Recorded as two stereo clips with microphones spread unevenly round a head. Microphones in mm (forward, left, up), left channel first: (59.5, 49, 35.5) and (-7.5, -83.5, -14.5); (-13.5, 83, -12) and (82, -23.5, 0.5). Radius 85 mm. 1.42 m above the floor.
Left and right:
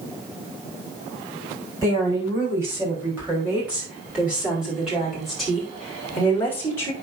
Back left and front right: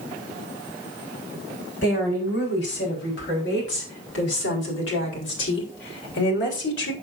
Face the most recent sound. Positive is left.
turn(degrees=140)